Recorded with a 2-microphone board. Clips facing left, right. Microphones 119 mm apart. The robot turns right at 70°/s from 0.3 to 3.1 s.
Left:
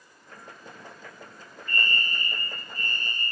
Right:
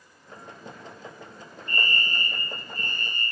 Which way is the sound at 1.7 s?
Straight behind.